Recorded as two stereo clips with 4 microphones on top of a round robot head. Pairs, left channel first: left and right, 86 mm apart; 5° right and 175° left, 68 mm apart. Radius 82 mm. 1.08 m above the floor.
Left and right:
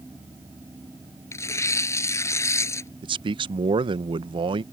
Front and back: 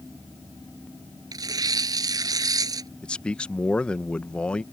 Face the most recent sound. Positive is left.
turn(degrees=-80)